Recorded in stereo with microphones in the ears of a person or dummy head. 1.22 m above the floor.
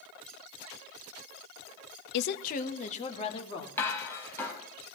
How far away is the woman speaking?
About 0.6 m.